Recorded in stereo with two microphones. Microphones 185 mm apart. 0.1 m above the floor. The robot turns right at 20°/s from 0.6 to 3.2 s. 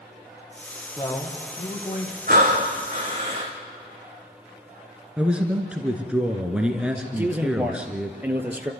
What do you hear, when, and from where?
1.0 s a man speaking: 15° left (ahead or behind), 3.5 m; by 2.2 s 35° left (ahead or behind), 3.5 m
2.3 s breathing: 50° right (ahead or behind), 3.5 m; by 3.5 s 30° right (ahead or behind), 3.5 m
5.2 s a man speaking: 5° right (ahead or behind), 1.5 m
7.2 s a man speaking: 10° right (ahead or behind), 1.7 m